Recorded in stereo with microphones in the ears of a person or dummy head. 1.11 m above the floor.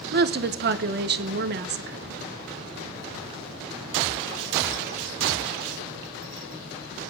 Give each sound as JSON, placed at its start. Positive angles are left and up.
{"t": 0.1, "sound": "a woman speaking", "side_deg": -50, "distance_m": 0.8}